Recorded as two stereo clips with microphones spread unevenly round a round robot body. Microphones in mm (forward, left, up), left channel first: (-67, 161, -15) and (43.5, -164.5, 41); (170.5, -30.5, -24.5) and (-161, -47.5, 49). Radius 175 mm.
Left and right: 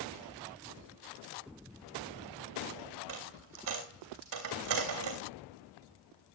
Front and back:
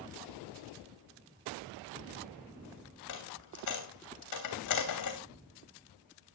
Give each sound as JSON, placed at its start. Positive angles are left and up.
{"t": 3.1, "sound": "a dropped coin", "azimuth_deg": -35, "distance_m": 3.0}